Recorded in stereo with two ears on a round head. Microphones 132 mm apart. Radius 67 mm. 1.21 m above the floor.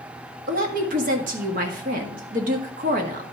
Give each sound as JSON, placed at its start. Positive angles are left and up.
{"t": 0.5, "sound": "a woman speaking", "side_deg": -55, "distance_m": 1.7}